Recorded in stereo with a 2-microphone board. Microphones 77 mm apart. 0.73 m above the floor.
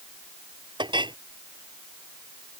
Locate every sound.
0.8 s a clink: 85° right